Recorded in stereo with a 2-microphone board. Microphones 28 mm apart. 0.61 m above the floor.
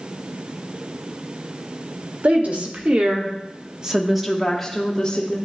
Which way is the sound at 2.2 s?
60° right (ahead or behind).